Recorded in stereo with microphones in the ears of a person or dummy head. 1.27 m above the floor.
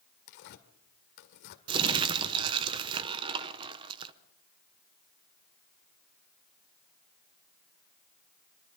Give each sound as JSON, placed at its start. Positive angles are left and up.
{"t": 0.3, "sound": "tearing paper", "side_deg": 65, "distance_m": 1.9}
{"t": 1.7, "sound": "crumpling", "side_deg": -25, "distance_m": 0.9}